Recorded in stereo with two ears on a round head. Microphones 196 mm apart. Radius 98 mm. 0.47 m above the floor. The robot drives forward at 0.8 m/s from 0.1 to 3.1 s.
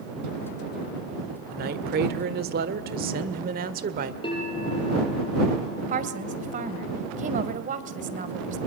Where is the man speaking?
45° right (ahead or behind), 1.6 m; by 4.1 s 40° right (ahead or behind), 1.6 m.